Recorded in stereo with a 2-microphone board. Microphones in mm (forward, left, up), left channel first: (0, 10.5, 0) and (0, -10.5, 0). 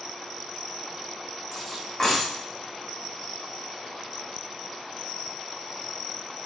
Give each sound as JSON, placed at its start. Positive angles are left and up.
{"t": 1.5, "sound": "cutlery clinking", "side_deg": 20, "distance_m": 5.5}